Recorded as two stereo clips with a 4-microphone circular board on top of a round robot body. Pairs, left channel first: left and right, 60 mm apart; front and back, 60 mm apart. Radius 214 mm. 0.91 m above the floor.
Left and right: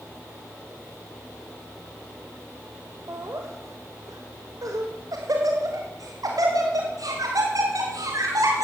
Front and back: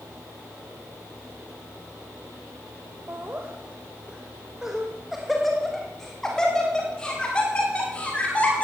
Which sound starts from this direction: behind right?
Laughter, at 3.1 s.